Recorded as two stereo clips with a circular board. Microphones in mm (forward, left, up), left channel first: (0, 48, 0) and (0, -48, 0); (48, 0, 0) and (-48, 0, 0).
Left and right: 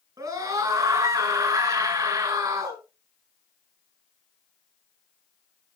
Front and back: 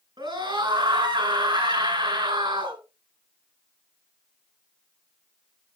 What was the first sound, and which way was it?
A scream, 140° right.